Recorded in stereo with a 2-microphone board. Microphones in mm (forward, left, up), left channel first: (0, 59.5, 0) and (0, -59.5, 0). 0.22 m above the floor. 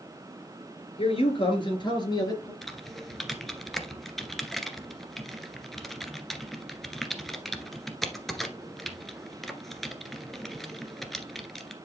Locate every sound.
1.0 s a man speaking: 55° left (ahead or behind), 4 m; by 2.5 s 30° left (ahead or behind), 4 m
2.6 s typing on a keyboard: centre (ahead or behind), 1.4 m